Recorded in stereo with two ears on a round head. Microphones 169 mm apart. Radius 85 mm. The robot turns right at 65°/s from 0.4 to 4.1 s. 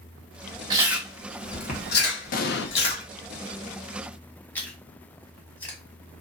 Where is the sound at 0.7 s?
20° right (ahead or behind), 1.1 m; by 3.0 s 45° left (ahead or behind), 1.1 m.